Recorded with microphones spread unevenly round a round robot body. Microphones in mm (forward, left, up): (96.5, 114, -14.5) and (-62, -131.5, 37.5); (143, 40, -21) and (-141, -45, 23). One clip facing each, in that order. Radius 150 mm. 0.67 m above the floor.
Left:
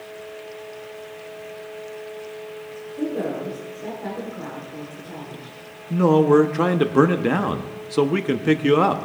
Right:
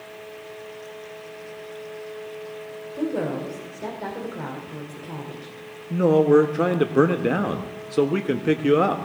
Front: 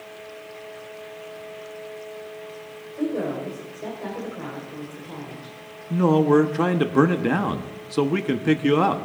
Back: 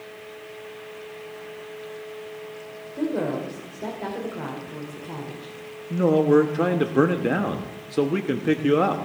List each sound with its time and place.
2.9 s a woman speaking: 125° right, 2.5 m
5.9 s a man speaking: 20° left, 0.7 m